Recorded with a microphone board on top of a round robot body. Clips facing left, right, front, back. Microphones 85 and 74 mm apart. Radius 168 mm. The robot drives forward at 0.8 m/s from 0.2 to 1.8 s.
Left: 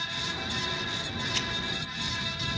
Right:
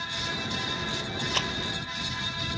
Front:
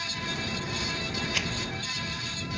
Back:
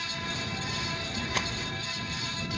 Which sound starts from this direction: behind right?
A rattle, at 1.3 s.